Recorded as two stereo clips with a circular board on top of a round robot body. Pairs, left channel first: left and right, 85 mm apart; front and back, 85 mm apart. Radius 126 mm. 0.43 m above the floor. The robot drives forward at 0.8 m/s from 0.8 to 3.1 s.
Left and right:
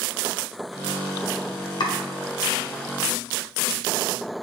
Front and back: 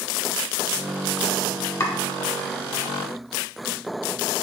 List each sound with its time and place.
1.8 s chopping: 55° left, 1.5 m